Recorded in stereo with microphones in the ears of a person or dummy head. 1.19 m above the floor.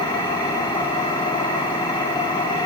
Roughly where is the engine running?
Left.